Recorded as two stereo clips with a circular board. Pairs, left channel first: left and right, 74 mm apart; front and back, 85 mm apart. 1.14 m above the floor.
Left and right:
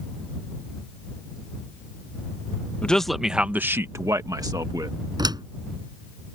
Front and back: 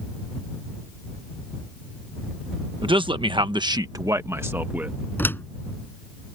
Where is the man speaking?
165° left; by 5.0 s 110° right.